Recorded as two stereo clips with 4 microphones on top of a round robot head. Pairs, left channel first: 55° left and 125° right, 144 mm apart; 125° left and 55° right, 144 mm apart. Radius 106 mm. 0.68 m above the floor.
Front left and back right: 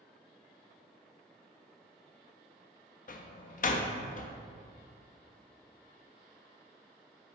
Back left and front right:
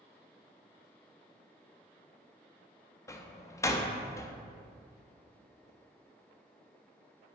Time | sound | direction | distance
3.1 | a door slam | 55° left | 0.5 m